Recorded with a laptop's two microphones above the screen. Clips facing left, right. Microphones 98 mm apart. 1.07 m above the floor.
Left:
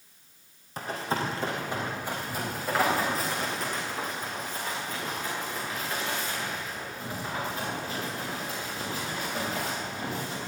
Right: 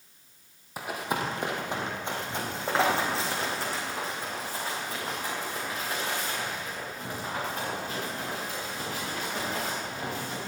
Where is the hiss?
I don't hear a hiss.